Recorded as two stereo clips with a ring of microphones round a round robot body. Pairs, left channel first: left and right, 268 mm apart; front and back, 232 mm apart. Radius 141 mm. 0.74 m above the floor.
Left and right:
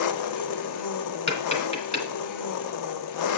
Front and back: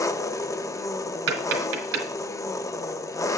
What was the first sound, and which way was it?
An engine running, 80° left.